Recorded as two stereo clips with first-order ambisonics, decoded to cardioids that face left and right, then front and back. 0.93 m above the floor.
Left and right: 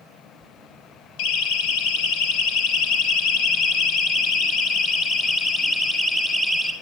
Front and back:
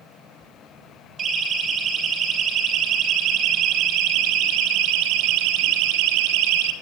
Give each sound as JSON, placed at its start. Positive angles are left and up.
{"t": 1.2, "sound": "a siren", "azimuth_deg": 115, "distance_m": 4.5}